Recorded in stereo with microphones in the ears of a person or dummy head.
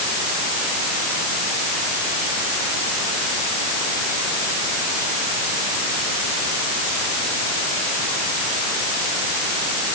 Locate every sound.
Only background noise.